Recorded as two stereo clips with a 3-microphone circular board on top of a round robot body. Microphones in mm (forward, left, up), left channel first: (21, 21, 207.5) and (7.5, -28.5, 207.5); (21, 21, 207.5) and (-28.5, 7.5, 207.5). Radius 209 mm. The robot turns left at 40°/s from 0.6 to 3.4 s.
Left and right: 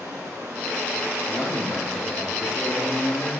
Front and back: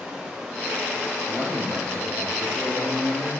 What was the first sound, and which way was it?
Running water, 90° right.